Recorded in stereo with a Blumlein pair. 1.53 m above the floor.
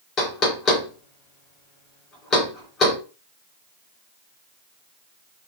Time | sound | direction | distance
0.2 | knocking | 25° left | 1.8 m